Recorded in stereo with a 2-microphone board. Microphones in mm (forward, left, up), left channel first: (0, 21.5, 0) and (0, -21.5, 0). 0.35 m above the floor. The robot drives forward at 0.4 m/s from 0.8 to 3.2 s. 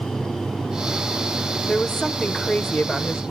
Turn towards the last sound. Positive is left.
turn(degrees=15)  # may be behind; listen again after turning